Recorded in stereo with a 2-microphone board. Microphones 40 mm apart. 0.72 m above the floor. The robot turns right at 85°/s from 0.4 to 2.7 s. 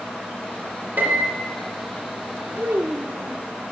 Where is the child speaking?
75° right (ahead or behind), 0.7 m; by 3.4 s 85° right, 0.7 m.